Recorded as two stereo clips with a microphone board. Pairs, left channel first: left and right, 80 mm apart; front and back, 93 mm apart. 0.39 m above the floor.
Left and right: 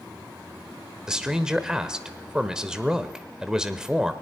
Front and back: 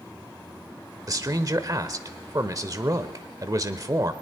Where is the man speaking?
165° right, 1.1 m.